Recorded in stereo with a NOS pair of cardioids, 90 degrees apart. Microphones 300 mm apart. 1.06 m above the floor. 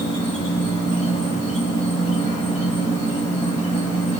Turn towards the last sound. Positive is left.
turn(degrees=25)